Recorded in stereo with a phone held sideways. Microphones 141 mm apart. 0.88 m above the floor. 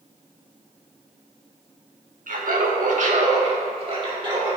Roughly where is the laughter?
Right.